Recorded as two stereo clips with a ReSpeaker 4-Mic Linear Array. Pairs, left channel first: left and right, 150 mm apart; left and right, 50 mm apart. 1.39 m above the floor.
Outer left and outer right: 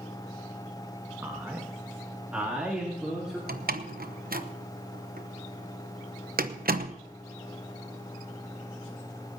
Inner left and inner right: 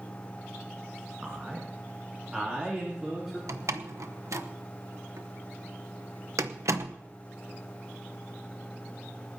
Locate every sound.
1.2 s a man speaking: 15° right (ahead or behind), 1.5 m; by 3.4 s 5° right (ahead or behind), 3.5 m
3.5 s a door slam: 80° right, 0.9 m